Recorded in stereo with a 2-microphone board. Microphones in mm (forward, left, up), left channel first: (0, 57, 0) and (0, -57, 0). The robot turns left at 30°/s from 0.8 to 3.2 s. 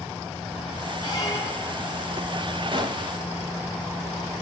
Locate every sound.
1.0 s a squeak: 40° left (ahead or behind), 3 m; by 1.8 s 15° left (ahead or behind), 3 m
2.7 s a gunshot: 45° right (ahead or behind), 1.5 m; by 3.1 s 35° right (ahead or behind), 1.5 m